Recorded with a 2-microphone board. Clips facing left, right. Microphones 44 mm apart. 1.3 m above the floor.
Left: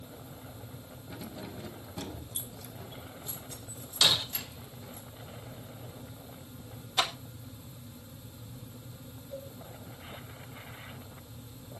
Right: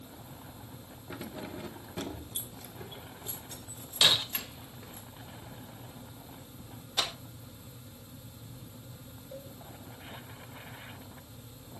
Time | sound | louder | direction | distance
1.1 | keys jangling | right 2 dB | 35° right (ahead or behind) | 1.0 m
4.0 | breaking glass | right 1 dB | 25° right (ahead or behind) | 1.7 m
7.0 | a clap | left 3 dB | 25° left (ahead or behind) | 2 m
9.3 | a cowbell | left 3 dB | 5° right (ahead or behind) | 8 m